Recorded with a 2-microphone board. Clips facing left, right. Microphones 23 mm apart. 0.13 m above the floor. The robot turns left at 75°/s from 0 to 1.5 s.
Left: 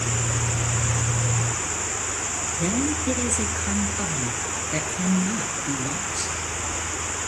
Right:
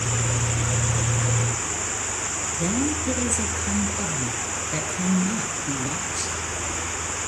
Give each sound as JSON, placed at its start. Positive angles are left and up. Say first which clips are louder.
{"t": 2.6, "sound": "a woman speaking", "louder": "even", "side_deg": 10, "distance_m": 2.0}